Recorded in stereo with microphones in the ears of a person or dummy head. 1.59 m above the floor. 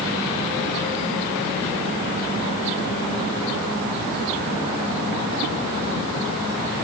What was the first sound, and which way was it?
Only background noise.